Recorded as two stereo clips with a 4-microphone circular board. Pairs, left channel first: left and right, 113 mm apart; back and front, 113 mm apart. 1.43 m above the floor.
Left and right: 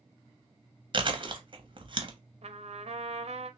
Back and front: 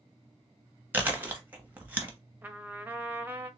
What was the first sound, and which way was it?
Chewing, 70° right.